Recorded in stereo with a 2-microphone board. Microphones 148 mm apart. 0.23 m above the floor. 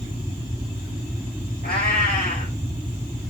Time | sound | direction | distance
1.6 | a cat meowing | 90° left | 2.5 m